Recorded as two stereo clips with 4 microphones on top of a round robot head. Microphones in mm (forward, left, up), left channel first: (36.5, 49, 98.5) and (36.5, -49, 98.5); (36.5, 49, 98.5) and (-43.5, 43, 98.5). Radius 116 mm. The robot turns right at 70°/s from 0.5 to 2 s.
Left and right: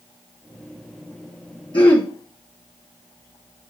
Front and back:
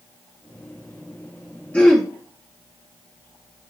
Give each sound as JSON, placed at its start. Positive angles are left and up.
{"t": 1.7, "sound": "throat clearing", "azimuth_deg": 70, "distance_m": 1.1}